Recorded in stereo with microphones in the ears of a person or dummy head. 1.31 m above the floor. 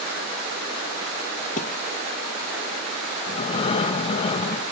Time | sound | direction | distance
1.6 | a thud | 40° left (ahead or behind) | ?
3.3 | breathing | 35° left (ahead or behind) | ?